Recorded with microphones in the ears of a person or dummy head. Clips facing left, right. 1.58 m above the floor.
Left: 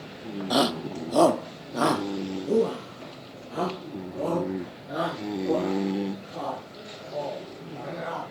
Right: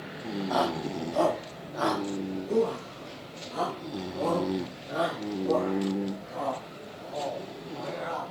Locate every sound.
0.5 s a shout: 45° left (ahead or behind), 0.7 m; by 8.3 s 20° left (ahead or behind), 4 m